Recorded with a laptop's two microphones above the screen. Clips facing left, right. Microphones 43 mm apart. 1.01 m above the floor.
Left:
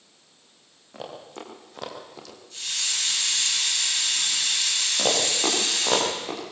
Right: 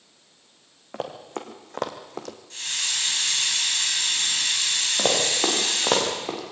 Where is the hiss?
60° right (ahead or behind), 8 m.